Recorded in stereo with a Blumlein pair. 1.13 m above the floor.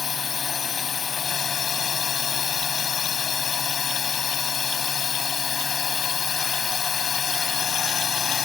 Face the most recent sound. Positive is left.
turn(degrees=20)